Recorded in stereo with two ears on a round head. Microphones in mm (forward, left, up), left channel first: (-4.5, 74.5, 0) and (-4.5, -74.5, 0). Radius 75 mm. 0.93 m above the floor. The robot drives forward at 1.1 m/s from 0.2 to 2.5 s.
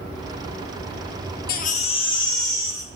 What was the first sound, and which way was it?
A baby crying, 65° left (ahead or behind).